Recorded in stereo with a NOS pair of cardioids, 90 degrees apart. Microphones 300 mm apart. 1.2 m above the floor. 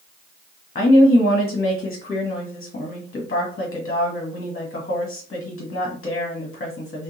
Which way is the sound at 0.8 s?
30° left.